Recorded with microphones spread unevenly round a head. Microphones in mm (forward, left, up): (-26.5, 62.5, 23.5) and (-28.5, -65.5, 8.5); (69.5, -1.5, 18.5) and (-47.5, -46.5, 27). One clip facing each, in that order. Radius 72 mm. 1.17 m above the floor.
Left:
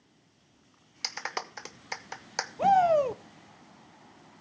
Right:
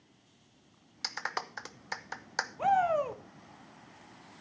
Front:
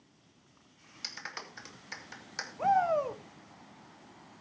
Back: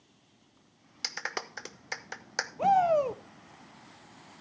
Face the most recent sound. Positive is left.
turn(degrees=135)